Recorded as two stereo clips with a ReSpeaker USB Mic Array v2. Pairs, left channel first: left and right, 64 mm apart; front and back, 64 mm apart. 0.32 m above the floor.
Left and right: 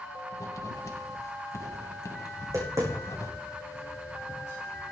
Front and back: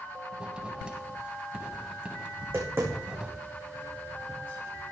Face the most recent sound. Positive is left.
turn(degrees=-125)